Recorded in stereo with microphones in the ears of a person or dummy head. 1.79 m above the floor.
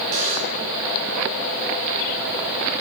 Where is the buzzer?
35° right (ahead or behind), 5.5 m.